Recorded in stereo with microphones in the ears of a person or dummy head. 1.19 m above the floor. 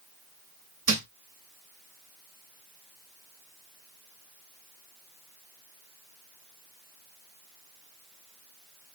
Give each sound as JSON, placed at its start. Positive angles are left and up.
{"t": 0.9, "sound": "a thud", "side_deg": -40, "distance_m": 2.5}